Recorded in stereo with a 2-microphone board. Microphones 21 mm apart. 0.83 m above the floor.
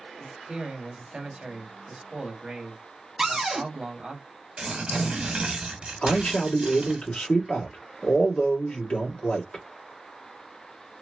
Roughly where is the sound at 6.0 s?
Left.